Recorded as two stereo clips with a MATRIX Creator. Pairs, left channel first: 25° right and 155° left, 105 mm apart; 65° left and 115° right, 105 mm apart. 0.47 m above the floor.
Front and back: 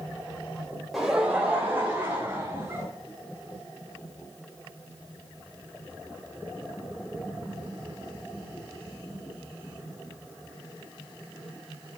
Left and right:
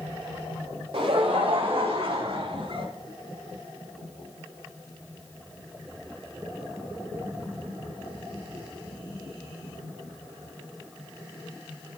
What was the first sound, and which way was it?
Laughter, 115° right.